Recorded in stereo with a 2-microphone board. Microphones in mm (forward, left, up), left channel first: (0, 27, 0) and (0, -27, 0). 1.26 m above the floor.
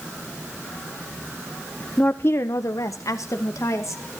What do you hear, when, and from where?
2.0 s a woman speaking: 20° left (ahead or behind), 0.5 m; by 4.2 s 60° left (ahead or behind), 1.6 m